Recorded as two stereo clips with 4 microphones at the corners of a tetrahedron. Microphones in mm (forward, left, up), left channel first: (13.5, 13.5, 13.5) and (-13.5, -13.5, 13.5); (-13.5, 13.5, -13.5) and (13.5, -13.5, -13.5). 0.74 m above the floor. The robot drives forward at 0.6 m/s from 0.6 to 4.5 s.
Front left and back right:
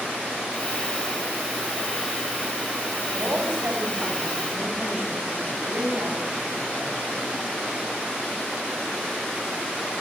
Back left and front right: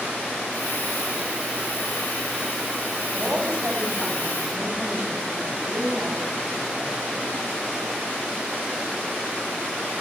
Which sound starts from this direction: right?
A woman speaking, at 3.1 s.